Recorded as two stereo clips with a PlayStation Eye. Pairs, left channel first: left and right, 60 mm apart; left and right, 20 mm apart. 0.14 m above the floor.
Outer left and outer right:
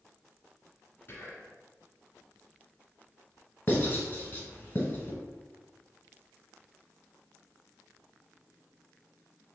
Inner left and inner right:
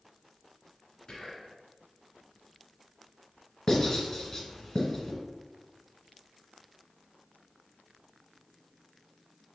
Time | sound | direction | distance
1.1 | whispering | 30° left (ahead or behind) | 1.2 m
3.7 | writing | 25° left (ahead or behind) | 1.1 m